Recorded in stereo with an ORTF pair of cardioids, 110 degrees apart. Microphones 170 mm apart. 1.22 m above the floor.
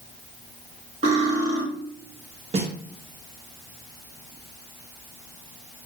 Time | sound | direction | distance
1.0 | cutlery clinking | 40° right | 1.6 m
2.5 | a snare drum | 40° right | 1.1 m